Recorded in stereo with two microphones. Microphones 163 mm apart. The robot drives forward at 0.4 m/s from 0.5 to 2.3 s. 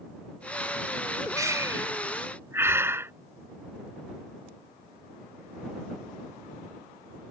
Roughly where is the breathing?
Centre.